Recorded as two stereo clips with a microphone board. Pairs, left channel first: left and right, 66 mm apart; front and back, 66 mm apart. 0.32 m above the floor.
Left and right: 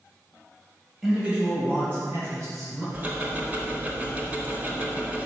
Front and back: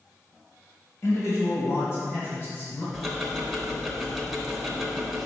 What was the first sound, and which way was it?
A man speaking, 5° right.